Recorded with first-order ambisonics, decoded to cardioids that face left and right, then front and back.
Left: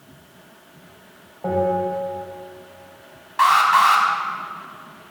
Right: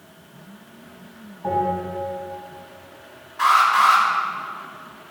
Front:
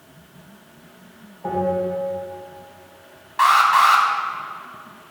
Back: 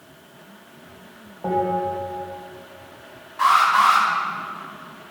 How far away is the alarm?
About 2 m.